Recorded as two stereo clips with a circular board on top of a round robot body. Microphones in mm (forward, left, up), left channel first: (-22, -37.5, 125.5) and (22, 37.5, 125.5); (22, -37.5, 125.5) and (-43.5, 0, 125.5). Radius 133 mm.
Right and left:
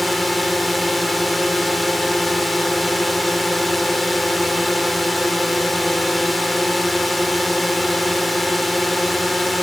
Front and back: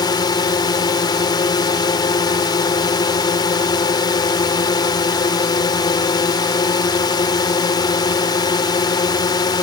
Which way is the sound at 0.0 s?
30° right.